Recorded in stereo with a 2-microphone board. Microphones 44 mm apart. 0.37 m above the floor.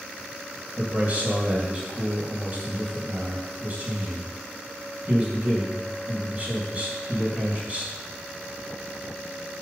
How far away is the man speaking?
About 2.5 m.